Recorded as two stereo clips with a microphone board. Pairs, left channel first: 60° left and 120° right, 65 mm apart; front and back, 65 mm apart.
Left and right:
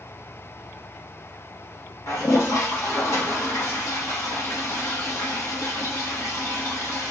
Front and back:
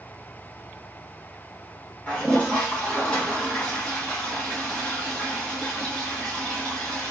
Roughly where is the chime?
No chime in this recording.